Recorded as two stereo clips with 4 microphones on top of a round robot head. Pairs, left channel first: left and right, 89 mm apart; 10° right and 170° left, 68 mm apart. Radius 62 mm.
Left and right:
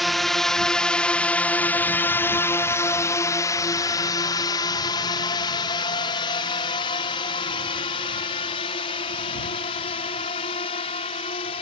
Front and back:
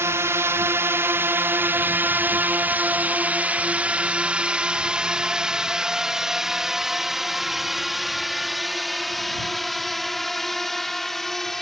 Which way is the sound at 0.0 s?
Straight behind.